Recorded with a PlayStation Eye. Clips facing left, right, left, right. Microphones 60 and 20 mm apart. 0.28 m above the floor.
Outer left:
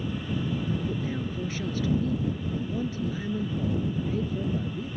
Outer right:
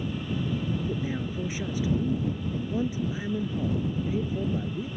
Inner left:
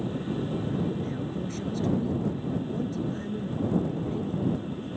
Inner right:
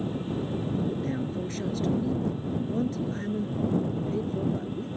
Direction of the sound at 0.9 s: 15° right (ahead or behind).